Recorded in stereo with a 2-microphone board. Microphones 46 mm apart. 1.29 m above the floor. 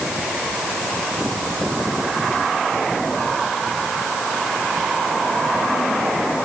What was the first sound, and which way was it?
Only background noise.